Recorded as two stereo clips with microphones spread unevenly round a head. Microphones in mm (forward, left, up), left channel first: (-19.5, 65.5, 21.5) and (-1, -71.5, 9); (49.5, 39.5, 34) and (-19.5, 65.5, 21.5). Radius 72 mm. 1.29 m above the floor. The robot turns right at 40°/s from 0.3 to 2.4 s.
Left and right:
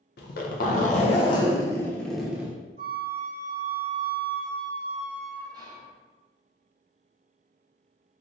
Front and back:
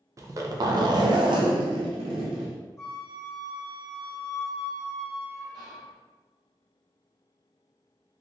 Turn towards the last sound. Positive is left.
turn(degrees=-145)